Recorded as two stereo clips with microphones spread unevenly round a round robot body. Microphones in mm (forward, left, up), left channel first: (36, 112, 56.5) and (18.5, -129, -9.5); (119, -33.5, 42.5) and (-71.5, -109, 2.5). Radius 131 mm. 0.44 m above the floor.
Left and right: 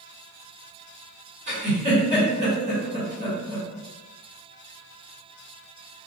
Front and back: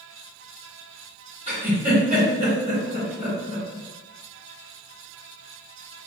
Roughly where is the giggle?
Behind right.